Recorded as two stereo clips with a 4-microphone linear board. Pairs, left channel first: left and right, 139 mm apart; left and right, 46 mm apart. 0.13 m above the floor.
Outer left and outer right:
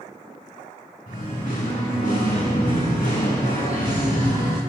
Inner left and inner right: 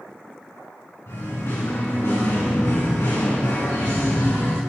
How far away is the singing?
About 4.5 m.